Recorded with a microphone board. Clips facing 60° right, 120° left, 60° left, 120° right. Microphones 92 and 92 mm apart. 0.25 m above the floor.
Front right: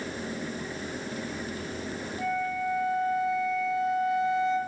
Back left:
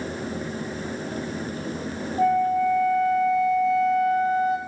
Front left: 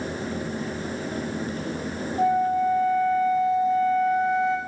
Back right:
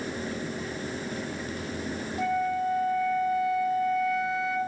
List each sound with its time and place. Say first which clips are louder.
2.2 s a flute: back left 10 dB, front left 6 dB; 120° left, 2.0 m